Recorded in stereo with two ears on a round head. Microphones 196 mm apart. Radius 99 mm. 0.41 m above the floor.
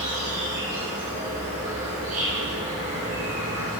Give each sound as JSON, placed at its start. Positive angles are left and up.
{"t": 0.0, "sound": "an insect", "side_deg": -35, "distance_m": 2.5}